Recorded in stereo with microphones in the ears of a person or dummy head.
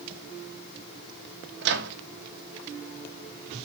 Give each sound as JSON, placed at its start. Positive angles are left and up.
{"t": 1.6, "sound": "a microwave", "side_deg": -65, "distance_m": 1.4}